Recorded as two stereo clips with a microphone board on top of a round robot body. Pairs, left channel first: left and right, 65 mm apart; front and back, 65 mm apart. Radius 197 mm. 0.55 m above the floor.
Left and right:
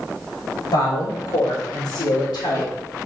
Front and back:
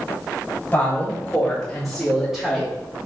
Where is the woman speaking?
70° left, 4 m; by 2.7 s 95° left, 2.5 m.